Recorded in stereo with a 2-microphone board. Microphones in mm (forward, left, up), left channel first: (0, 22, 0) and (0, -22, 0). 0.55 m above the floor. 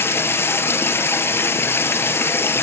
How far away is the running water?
About 1.1 m.